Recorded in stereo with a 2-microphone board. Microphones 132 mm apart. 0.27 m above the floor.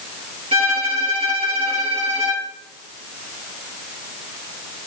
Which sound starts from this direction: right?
A violin, at 0.5 s.